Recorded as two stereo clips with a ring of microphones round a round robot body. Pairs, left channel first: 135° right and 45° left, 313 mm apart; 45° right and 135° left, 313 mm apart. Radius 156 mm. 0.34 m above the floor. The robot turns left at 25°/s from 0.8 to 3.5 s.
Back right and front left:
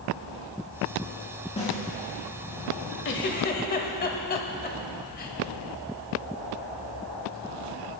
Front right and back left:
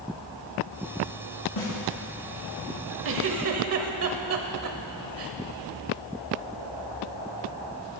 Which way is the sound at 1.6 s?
65° right.